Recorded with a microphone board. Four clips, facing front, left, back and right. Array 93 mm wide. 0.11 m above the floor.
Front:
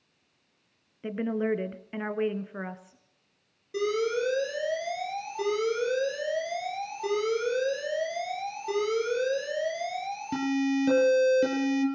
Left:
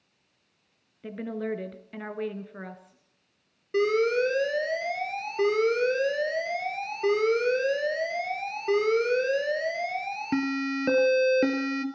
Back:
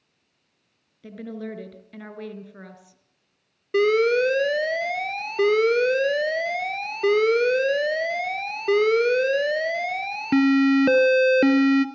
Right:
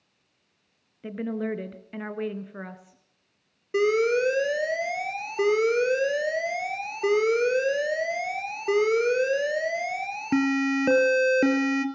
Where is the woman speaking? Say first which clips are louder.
Right 2 dB, front 6 dB; 20° right, 1.8 m.